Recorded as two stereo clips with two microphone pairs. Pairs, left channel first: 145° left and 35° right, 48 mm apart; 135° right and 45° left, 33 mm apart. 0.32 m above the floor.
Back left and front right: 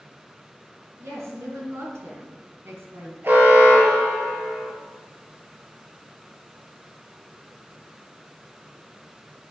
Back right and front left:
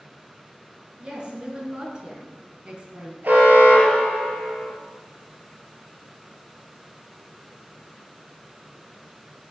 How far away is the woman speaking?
About 4 m.